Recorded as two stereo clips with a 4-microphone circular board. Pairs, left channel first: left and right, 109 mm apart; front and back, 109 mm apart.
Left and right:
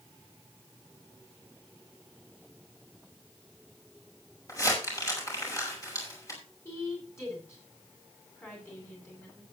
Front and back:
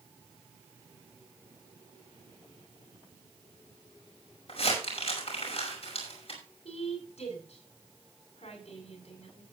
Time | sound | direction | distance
4.5 | crumpling | 30° left | 5.5 m
6.7 | a woman speaking | 25° left | 9 m